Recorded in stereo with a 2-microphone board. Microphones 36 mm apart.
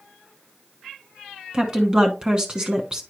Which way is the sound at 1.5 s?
20° right (ahead or behind).